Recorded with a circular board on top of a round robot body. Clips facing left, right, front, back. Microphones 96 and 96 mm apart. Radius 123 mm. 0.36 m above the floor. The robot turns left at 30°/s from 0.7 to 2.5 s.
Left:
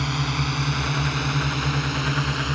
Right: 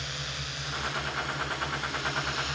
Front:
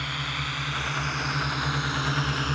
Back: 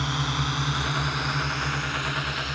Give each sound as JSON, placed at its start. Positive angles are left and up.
{"t": 0.0, "sound": "a drone", "azimuth_deg": 115}